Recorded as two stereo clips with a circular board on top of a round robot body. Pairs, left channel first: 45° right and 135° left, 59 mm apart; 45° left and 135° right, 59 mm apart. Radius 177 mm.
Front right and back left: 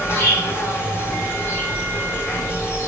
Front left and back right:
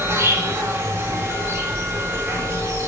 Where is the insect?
90° right, 5 m.